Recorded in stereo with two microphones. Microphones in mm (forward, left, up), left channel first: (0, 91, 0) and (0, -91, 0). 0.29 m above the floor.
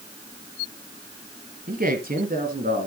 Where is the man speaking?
50° right (ahead or behind), 1.8 m.